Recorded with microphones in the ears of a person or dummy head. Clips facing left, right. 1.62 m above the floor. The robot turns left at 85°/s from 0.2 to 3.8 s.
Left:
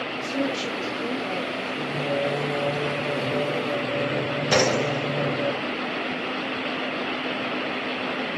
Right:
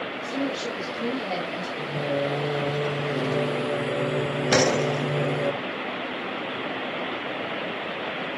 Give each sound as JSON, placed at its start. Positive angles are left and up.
{"t": 0.2, "sound": "a woman speaking", "azimuth_deg": 35, "distance_m": 3.5}
{"t": 1.8, "sound": "singing", "azimuth_deg": 55, "distance_m": 2.0}
{"t": 4.5, "sound": "a door slam", "side_deg": 5, "distance_m": 2.0}